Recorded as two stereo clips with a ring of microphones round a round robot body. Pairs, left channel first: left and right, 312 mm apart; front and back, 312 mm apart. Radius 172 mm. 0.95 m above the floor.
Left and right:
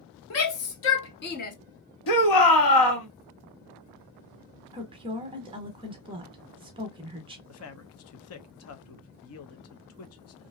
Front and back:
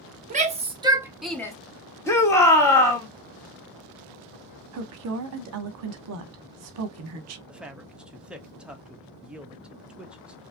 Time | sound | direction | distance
0.3 | a shout | 120° left | 1.2 m
2.1 | a shout | 80° left | 1.5 m
4.7 | a woman speaking | 160° right | 0.7 m
7.5 | a man speaking | 95° left | 0.7 m